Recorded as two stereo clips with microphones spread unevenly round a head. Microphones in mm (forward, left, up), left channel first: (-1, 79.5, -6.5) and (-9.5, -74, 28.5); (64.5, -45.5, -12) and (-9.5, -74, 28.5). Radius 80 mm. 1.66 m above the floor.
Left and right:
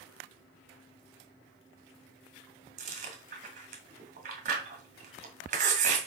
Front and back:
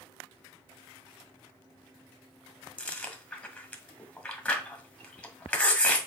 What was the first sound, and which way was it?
Chewing, 65° right.